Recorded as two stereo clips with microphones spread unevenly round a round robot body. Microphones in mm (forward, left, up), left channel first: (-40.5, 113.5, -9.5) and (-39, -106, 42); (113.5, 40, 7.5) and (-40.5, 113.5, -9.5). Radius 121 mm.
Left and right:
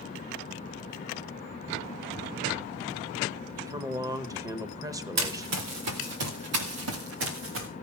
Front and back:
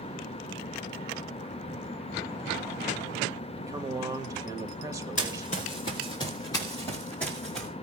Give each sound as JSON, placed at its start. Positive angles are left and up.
{"t": 3.5, "sound": "a man speaking", "azimuth_deg": -175, "distance_m": 1.1}
{"t": 5.2, "sound": "running footsteps", "azimuth_deg": -85, "distance_m": 2.5}